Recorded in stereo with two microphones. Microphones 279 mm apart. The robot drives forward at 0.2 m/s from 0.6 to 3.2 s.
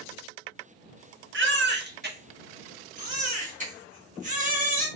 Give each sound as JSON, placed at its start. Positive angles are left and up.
{"t": 1.3, "sound": "a baby crying", "side_deg": -50, "distance_m": 0.6}